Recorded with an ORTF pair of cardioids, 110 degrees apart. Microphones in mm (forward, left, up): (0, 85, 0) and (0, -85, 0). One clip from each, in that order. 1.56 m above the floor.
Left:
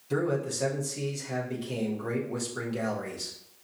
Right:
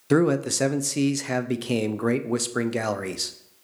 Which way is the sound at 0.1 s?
60° right.